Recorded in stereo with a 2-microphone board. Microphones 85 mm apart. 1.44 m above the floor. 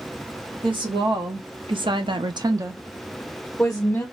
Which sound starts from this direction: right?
A woman speaking, at 0.6 s.